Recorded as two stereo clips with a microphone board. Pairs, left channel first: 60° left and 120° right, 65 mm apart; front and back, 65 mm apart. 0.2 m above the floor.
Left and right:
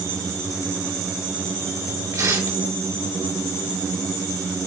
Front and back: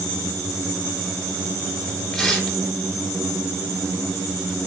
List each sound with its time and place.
2.1 s tearing paper: 85° right, 3 m